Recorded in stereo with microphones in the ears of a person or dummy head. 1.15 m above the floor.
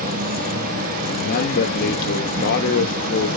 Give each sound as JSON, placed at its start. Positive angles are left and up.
{"t": 0.0, "sound": "an insect", "side_deg": -40, "distance_m": 1.5}
{"t": 1.1, "sound": "a man speaking", "side_deg": 55, "distance_m": 1.5}